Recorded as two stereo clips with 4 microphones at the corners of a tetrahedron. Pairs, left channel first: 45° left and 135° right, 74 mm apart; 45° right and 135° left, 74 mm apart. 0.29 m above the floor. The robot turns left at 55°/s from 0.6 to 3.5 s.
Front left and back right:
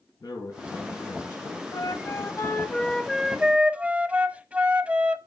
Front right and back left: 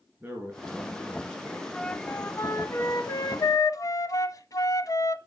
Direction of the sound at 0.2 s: 75° left.